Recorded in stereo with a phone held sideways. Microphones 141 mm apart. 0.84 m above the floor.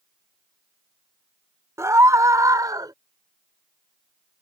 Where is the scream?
20° right (ahead or behind); by 2.9 s 25° right (ahead or behind).